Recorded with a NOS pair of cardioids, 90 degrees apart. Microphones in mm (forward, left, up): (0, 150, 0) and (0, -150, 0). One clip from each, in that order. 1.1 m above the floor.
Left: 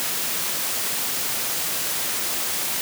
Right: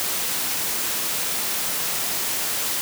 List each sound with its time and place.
Only background noise.